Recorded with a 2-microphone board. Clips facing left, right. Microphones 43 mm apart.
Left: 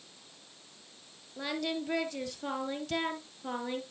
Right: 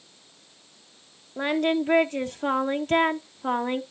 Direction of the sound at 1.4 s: 40° right (ahead or behind).